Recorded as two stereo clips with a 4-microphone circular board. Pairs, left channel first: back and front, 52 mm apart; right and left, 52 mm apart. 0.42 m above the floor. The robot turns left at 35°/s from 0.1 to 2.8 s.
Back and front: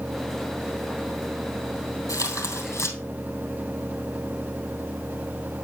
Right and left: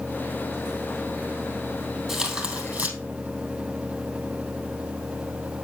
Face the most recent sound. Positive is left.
turn(degrees=150)